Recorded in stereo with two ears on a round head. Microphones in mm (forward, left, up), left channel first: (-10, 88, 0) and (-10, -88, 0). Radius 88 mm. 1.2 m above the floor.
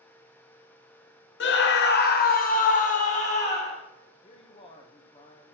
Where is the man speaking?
30° left (ahead or behind), 1.2 m.